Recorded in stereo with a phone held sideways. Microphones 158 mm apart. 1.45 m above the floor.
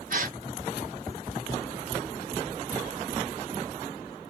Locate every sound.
0.1 s a gasp: 60° right (ahead or behind), 0.9 m